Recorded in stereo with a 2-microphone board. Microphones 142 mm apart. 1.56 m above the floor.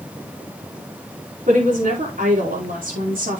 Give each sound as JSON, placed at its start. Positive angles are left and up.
{"t": 1.5, "sound": "a woman speaking", "side_deg": -70, "distance_m": 5.0}